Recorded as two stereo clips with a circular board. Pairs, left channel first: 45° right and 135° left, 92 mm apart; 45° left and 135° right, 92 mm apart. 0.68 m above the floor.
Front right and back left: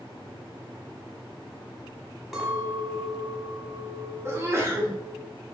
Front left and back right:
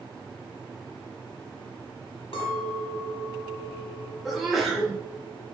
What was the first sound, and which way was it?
A clink, 45° left.